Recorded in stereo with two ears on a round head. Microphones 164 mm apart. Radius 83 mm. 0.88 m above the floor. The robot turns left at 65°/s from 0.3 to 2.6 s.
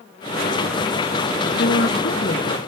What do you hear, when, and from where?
1.6 s a woman speaking: 110° left, 1.1 m; by 2.6 s 45° left, 1.1 m